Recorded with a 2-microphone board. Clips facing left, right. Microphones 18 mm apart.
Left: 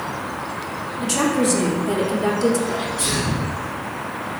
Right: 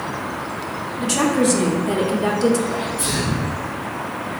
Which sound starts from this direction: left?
A sneeze, at 2.7 s.